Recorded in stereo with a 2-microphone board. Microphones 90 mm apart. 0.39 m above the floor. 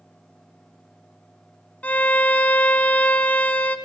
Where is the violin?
20° left (ahead or behind), 0.6 m.